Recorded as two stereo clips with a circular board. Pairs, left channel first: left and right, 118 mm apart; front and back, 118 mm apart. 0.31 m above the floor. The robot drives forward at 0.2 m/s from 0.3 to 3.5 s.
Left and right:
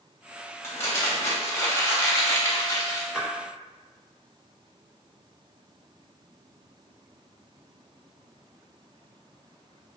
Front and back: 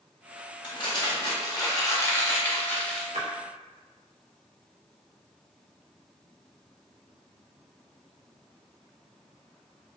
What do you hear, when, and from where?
0.6 s crumpling: 30° left, 0.8 m; by 3.0 s 75° left, 0.6 m
3.1 s a splash: 175° right, 0.7 m